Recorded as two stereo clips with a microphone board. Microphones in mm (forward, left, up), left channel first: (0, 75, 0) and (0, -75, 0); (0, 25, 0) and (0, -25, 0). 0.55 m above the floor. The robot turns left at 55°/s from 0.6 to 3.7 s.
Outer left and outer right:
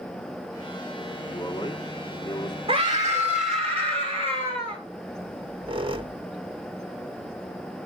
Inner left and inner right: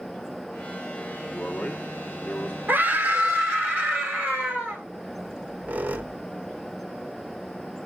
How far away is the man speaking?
About 1.1 m.